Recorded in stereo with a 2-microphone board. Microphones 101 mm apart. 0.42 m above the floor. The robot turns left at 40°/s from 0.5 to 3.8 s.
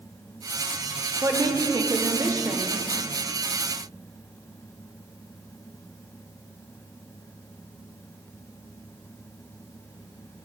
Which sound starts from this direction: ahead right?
A woman speaking, at 1.2 s.